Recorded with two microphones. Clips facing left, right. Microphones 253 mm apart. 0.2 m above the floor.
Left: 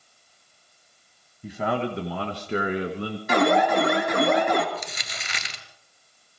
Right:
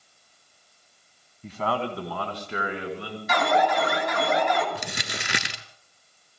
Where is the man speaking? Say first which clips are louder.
Left 2 dB; 10° left (ahead or behind), 1.4 m; by 3.2 s 45° left (ahead or behind), 2 m.